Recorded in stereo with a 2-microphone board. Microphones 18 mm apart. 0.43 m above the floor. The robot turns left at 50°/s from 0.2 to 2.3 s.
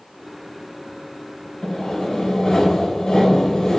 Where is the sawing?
115° left, 1.5 m; by 3.8 s 80° left, 1.5 m.